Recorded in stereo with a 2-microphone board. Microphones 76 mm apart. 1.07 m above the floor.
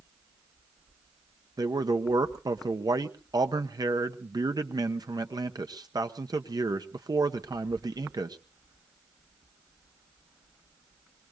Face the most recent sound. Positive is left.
turn(degrees=-60)  # may be behind; listen again after turning